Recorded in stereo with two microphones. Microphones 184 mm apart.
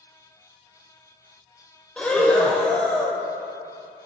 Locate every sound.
2.0 s breathing: 5° left (ahead or behind), 0.8 m